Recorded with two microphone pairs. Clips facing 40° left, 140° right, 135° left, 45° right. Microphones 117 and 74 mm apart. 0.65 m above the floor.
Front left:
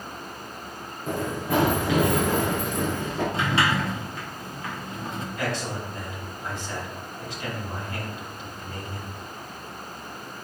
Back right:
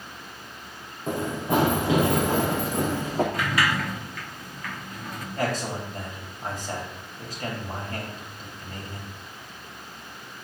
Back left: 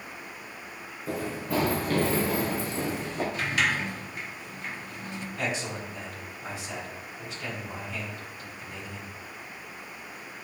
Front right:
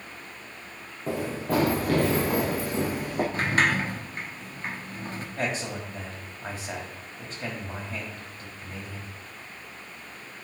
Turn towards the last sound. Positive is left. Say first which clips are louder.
# back right 3 dB, front right 2 dB
turn(degrees=-95)